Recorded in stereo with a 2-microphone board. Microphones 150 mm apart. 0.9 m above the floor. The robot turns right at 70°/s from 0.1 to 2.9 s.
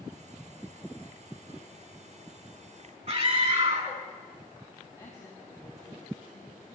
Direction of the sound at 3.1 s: 50° right (ahead or behind).